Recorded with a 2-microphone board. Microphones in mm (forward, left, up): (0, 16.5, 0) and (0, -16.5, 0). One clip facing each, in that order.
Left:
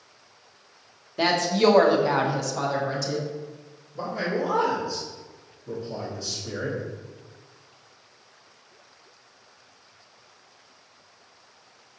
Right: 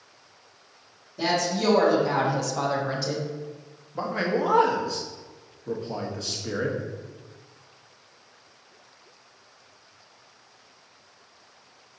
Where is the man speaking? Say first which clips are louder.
Right 2 dB; 70° right (ahead or behind), 0.8 m.